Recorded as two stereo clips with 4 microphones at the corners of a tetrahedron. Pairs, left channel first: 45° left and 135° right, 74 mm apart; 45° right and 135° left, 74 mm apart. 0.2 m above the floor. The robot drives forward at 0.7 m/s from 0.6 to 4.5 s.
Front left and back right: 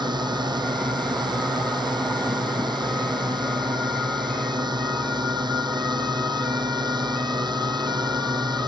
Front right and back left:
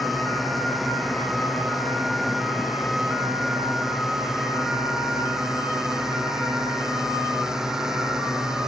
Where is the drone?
135° right; by 8.7 s 140° right.